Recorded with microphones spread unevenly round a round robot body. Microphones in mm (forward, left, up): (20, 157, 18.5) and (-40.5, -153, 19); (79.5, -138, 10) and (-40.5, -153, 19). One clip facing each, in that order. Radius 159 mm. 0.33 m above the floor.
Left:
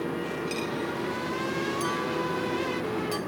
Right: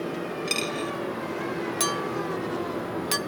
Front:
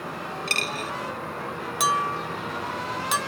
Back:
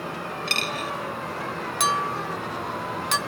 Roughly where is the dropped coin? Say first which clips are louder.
Even, back 2 dB; ahead right.